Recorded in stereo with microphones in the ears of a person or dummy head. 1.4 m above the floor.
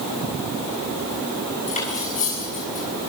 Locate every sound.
1.7 s cutlery clinking: 45° left (ahead or behind), 7 m